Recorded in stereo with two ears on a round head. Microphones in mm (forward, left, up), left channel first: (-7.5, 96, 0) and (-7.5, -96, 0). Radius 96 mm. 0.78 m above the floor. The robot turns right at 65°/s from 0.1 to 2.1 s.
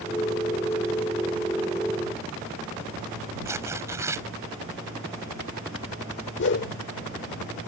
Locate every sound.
3.5 s tearing paper: 15° right (ahead or behind)
6.4 s a whoosh: 60° left (ahead or behind)